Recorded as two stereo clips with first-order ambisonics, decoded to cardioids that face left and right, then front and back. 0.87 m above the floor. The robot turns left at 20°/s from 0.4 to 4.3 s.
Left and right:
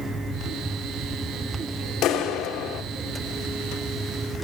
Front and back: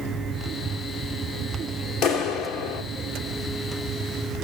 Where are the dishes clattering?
No dishes clattering in this recording.